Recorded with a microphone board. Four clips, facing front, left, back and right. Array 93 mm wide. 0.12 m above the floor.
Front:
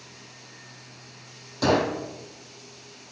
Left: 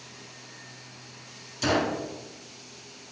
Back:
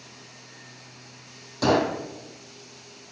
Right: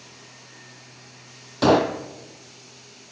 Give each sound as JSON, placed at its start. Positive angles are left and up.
{"t": 1.6, "sound": "a gunshot", "azimuth_deg": -90, "distance_m": 0.7}